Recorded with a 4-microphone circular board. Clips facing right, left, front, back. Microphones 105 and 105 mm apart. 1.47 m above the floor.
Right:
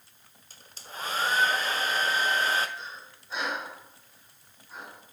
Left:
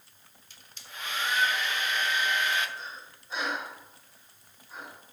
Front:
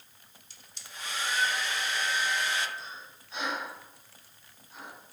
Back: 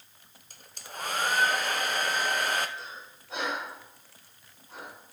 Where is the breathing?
Straight behind, 5.5 m.